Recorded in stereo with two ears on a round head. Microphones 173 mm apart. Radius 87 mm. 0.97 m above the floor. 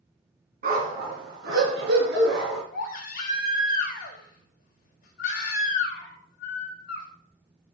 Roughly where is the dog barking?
Right.